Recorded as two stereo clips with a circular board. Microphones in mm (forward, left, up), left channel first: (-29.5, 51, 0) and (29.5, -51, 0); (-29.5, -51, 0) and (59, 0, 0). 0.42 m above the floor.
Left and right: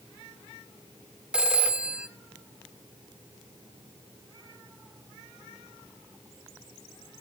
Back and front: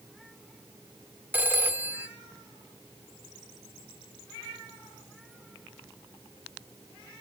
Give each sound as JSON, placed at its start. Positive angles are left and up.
{"t": 1.3, "sound": "a phone ringing", "azimuth_deg": 5, "distance_m": 0.8}